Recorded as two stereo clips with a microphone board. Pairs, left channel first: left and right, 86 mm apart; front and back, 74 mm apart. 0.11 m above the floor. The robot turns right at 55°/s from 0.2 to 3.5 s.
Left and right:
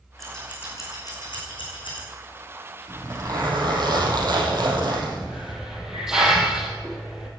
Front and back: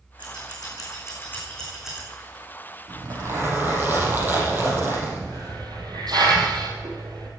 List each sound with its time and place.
0.2 s scissors: 5° left, 6 m; by 2.0 s 105° left, 6 m
2.9 s a zipper: 155° right, 4.5 m; by 5.5 s 120° right, 4.5 m
5.2 s a hiss: 175° right, 3.5 m